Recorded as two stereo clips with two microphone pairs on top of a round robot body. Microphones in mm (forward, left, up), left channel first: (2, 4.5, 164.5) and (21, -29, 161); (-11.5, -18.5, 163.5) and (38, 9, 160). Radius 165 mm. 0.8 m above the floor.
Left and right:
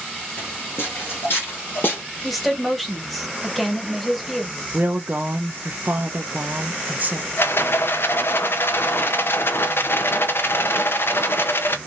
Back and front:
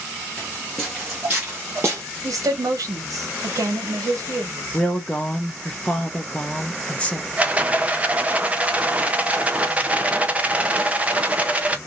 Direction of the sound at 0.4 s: 140° left.